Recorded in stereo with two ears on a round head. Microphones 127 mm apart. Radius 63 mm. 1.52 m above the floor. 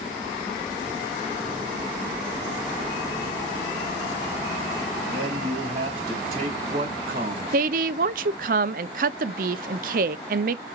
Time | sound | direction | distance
5.0 | a man speaking | 50° right (ahead or behind) | 2.5 m
7.5 | a woman speaking | 65° right (ahead or behind) | 0.5 m